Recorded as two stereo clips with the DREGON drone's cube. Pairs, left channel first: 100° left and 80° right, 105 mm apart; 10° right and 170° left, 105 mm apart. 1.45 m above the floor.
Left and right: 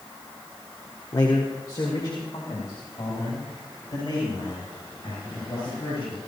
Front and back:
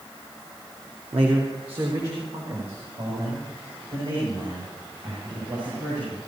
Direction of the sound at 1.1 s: 150° left.